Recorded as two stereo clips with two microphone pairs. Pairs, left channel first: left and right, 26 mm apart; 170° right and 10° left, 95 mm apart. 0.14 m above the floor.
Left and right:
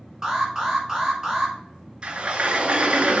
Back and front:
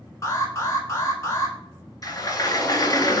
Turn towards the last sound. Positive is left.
turn(degrees=-130)